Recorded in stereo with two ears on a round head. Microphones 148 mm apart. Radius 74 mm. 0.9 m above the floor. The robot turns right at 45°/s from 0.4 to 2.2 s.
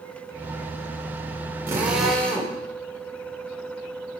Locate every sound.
1.7 s a drill: 15° right (ahead or behind), 3 m; by 2.6 s 5° left (ahead or behind), 3 m